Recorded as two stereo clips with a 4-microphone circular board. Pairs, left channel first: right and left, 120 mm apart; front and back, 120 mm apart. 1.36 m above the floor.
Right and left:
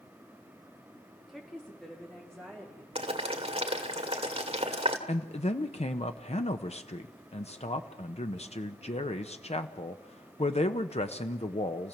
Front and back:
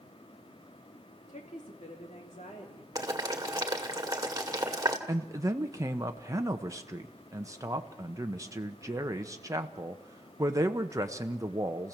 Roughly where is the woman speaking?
Ahead.